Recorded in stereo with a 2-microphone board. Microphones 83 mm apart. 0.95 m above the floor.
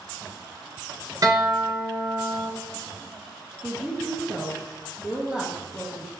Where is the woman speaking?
10° right (ahead or behind), 0.6 m.